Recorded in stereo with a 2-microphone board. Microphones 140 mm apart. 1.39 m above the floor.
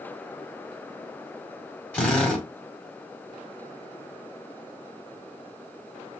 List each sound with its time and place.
1.9 s a drill: 10° left (ahead or behind), 1.8 m